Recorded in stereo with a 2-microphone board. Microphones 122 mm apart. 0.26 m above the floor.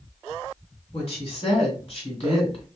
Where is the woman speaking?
55° left (ahead or behind), 1.7 m.